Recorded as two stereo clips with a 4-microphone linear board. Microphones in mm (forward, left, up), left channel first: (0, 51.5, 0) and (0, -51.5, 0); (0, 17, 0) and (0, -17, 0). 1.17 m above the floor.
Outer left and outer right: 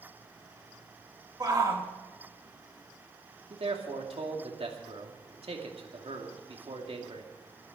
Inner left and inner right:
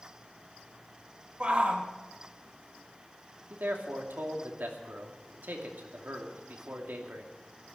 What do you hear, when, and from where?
1.4 s a shout: 35° right (ahead or behind), 2.5 m
3.5 s a man speaking: 75° right (ahead or behind), 2.5 m